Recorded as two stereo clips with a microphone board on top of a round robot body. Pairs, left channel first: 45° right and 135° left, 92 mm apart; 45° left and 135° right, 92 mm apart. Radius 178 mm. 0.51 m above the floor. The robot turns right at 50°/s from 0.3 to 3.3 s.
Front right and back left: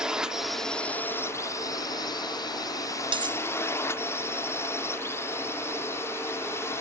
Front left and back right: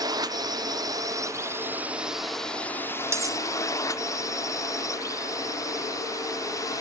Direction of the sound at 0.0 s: 145° right.